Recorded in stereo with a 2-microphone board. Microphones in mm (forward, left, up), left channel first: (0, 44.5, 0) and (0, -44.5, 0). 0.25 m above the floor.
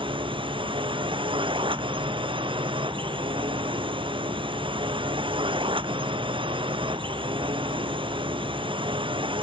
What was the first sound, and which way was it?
A drone, 70° right (ahead or behind).